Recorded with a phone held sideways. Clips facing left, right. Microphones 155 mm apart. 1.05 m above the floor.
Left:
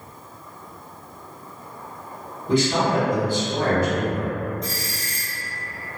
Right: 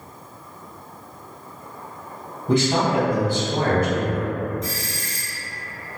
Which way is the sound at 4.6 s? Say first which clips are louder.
Right 1 dB; 35° left (ahead or behind).